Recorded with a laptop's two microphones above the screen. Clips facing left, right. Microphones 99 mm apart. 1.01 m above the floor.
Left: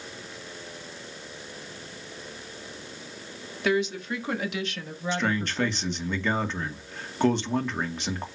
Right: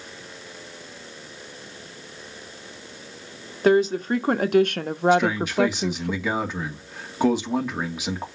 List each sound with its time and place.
3.6 s a woman speaking: 40° right (ahead or behind), 1.6 m; by 6.1 s 70° right (ahead or behind), 0.8 m
5.1 s a man speaking: 5° right (ahead or behind), 2 m